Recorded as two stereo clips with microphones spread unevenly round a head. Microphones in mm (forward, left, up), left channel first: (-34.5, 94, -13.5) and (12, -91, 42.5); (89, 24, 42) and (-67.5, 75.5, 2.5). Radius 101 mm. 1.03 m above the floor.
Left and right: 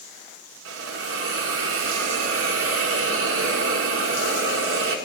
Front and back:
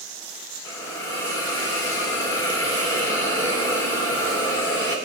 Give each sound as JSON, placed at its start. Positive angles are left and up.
{"t": 0.7, "sound": "a hiss", "azimuth_deg": -100, "distance_m": 1.8}